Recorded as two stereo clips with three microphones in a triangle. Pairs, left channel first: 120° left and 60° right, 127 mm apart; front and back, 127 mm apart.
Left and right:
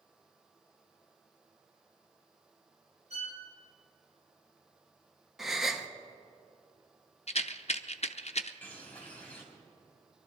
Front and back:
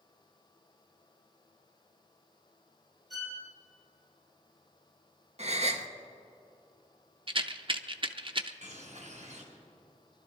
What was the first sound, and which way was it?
A violin, 90° right.